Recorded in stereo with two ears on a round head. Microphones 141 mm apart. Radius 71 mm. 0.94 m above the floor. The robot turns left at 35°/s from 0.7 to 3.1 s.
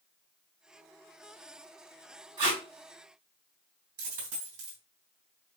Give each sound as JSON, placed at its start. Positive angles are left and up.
{"t": 2.4, "sound": "tape being pulled", "side_deg": -25, "distance_m": 2.5}
{"t": 4.0, "sound": "a dropped coin", "side_deg": -55, "distance_m": 3.0}